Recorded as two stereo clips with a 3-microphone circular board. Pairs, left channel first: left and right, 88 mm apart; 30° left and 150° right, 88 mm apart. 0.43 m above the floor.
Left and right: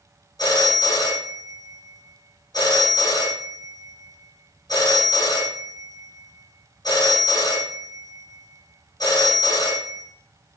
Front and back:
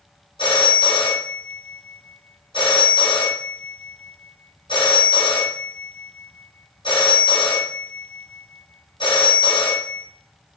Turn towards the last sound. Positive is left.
turn(degrees=45)